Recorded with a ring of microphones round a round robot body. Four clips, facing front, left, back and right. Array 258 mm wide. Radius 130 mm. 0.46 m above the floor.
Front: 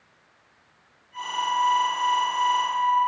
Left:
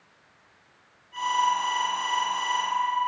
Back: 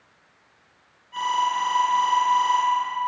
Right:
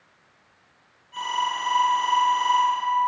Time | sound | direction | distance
1.1 | an alarm | 175° right | 10 m